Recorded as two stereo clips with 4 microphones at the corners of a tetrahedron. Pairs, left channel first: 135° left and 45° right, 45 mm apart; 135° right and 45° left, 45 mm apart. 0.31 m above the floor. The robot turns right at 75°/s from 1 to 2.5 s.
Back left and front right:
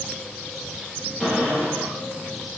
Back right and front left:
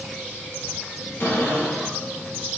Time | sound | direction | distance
1.2 | a cupboard door | 120° right | 3.5 m